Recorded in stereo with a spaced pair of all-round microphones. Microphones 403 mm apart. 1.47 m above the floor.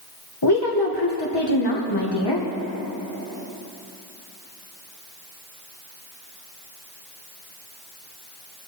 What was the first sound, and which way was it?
A woman speaking, 70° left (ahead or behind).